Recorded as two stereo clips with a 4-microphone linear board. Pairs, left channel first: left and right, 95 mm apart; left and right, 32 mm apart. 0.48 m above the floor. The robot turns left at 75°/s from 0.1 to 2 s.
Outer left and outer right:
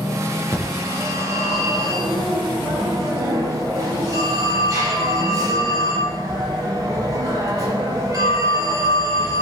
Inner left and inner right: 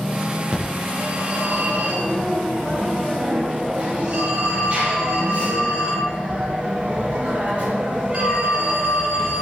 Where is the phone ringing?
30° right, 7.5 m; by 9.4 s 140° right, 7.5 m.